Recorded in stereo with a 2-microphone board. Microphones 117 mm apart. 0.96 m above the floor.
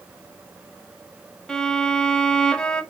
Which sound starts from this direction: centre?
A violin, at 1.5 s.